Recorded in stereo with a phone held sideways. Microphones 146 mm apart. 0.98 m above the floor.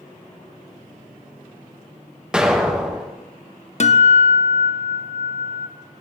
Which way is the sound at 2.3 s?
5° right (ahead or behind).